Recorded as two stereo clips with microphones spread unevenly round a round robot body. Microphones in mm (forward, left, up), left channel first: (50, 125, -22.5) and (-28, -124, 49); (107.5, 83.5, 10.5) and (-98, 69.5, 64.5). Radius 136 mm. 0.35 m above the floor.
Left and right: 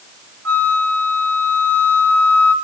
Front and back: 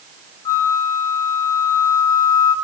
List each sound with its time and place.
0.5 s a flute: 70° right, 1.0 m